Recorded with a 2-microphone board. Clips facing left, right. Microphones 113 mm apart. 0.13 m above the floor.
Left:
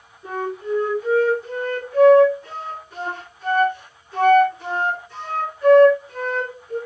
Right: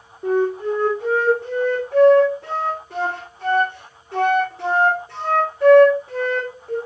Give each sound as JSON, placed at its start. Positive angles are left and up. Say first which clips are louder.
{"t": 0.2, "sound": "a flute", "louder": "right 7 dB", "side_deg": -75, "distance_m": 4.5}